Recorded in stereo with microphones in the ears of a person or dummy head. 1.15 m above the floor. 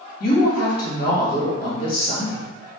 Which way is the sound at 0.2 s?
50° left (ahead or behind).